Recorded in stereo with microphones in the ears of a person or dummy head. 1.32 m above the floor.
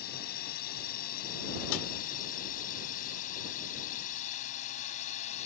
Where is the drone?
50° left (ahead or behind); by 5.5 s 40° left (ahead or behind).